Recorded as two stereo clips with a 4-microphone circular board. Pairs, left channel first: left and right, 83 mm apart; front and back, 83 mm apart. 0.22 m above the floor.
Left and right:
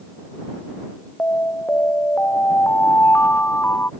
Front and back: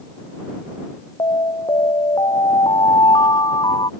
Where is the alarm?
25° left.